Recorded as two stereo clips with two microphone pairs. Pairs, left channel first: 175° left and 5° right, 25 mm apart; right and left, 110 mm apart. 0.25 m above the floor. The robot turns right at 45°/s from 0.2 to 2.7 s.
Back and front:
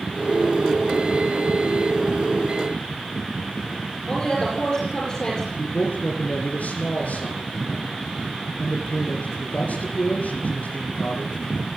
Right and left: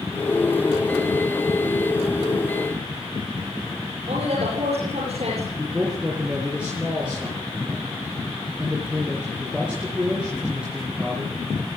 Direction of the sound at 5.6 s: 170° left.